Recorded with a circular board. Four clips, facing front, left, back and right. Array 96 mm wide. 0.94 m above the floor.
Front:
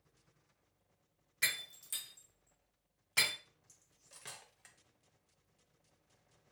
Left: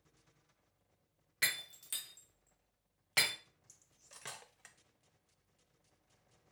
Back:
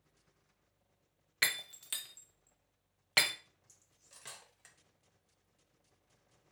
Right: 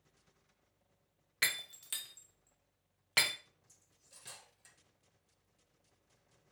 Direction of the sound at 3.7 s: 85° left.